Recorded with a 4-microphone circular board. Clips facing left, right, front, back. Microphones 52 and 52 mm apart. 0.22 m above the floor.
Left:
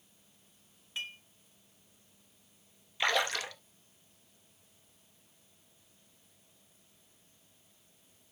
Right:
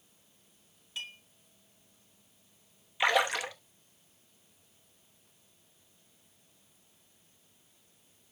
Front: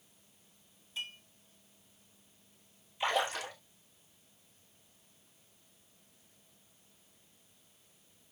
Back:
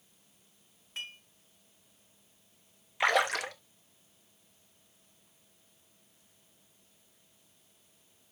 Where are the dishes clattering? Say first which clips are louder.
Left 1 dB, even; 150° left, 2.5 m.